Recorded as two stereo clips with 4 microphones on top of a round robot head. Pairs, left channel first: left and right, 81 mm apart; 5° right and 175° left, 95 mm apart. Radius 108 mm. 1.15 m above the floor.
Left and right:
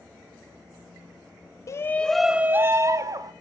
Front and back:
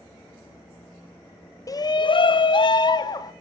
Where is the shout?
45° left, 0.8 m; by 3.3 s 50° right, 1.6 m.